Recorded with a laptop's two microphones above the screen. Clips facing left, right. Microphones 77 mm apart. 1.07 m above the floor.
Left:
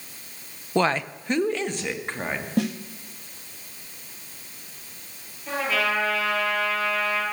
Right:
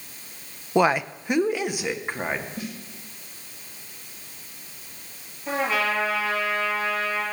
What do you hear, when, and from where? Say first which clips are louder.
0.8 s a woman speaking: right 2 dB; 10° right (ahead or behind), 0.5 m
2.6 s a snare drum: left 10 dB; 70° left (ahead or behind), 1.5 m
5.5 s a trumpet: right 1 dB; 25° right (ahead or behind), 10 m